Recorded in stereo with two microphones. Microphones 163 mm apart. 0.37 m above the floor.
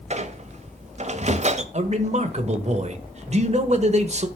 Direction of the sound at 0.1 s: 40° right (ahead or behind).